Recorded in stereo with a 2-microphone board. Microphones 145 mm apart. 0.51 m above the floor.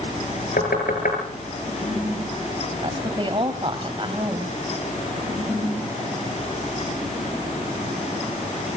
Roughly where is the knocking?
Left.